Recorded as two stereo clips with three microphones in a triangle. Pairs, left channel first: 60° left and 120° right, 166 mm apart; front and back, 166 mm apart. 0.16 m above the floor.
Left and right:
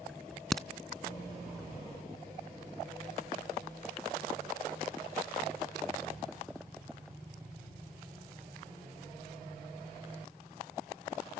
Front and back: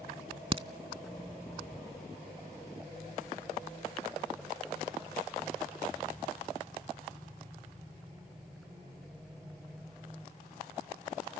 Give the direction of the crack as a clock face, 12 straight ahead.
7 o'clock.